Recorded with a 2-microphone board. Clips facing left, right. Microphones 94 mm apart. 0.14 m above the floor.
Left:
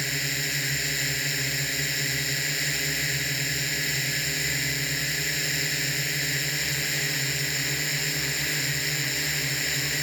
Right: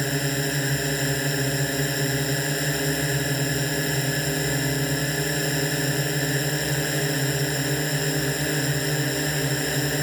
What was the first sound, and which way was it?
A drone, 40° right (ahead or behind).